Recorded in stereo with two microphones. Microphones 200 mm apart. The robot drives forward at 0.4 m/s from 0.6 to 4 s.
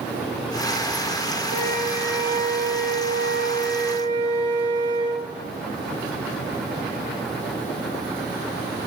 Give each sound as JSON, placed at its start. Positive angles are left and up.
{"t": 1.5, "sound": "a flute", "side_deg": -45, "distance_m": 2.5}